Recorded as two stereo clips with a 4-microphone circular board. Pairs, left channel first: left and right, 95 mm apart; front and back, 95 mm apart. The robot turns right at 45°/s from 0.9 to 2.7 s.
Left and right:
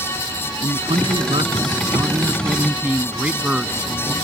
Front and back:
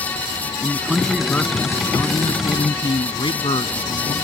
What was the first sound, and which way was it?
A man speaking, 95° right.